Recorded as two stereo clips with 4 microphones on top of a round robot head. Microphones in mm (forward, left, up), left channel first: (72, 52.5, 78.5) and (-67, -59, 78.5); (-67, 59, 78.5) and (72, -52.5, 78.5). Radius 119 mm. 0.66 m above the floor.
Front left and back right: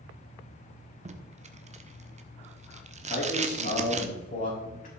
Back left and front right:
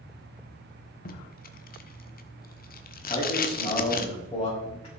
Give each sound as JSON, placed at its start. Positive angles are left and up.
{"t": 1.1, "sound": "tape being pulled", "azimuth_deg": 170, "distance_m": 1.2}
{"t": 3.0, "sound": "a man speaking", "azimuth_deg": 75, "distance_m": 5.0}